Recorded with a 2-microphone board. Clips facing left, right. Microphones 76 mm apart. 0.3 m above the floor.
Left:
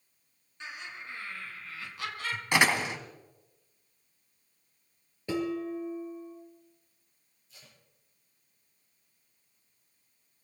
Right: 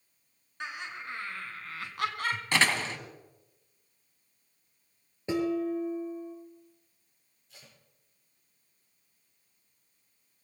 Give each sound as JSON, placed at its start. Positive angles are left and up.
{"t": 0.6, "sound": "laughter", "side_deg": -65, "distance_m": 4.5}
{"t": 2.5, "sound": "a door slam", "side_deg": 15, "distance_m": 1.3}
{"t": 5.3, "sound": "dishes clattering", "side_deg": -20, "distance_m": 4.0}
{"t": 7.5, "sound": "tape being pulled", "side_deg": -60, "distance_m": 5.0}